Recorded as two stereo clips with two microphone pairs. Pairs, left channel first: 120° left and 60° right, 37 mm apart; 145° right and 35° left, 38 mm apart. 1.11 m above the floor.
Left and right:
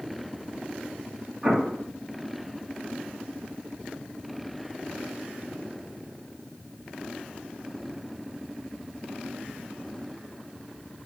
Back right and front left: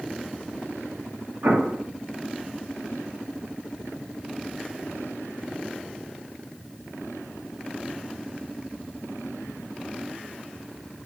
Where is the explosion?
5° left, 2.5 m.